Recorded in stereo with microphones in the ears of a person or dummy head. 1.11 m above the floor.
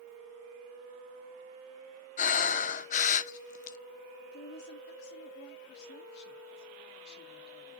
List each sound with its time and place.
2.2 s breathing: 40° left (ahead or behind), 0.9 m
4.2 s a woman speaking: 65° left (ahead or behind), 2.5 m